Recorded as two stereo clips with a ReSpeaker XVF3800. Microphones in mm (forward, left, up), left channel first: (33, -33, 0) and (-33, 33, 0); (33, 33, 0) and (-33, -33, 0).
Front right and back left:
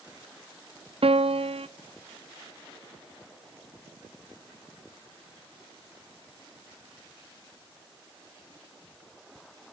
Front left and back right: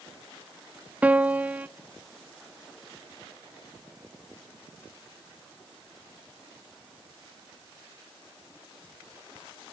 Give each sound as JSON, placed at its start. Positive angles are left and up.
{"t": 1.0, "sound": "a piano", "azimuth_deg": 150, "distance_m": 0.7}